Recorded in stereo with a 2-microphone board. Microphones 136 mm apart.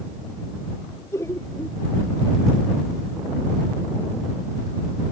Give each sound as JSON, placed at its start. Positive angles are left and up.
{"t": 1.1, "sound": "laughter", "side_deg": 20}